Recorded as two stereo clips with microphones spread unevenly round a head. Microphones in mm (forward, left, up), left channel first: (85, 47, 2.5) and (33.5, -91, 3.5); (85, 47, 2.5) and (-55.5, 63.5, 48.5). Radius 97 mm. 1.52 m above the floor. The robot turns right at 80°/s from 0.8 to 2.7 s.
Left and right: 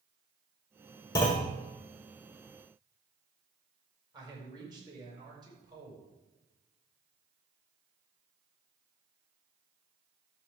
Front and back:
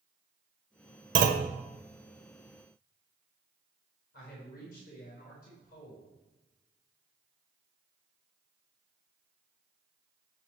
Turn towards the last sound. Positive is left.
turn(degrees=-50)